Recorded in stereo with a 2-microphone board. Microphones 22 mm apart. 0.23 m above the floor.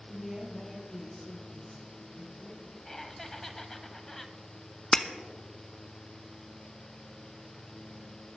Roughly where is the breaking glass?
Left.